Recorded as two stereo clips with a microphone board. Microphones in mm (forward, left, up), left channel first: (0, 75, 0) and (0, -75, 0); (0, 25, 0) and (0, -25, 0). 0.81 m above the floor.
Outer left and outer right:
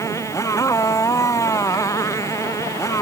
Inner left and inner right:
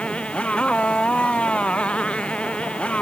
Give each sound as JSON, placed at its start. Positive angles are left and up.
{"t": 0.0, "sound": "a motorcycle", "side_deg": 20}